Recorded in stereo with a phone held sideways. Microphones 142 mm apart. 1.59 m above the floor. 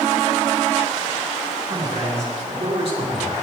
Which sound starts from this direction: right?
A man speaking, at 1.7 s.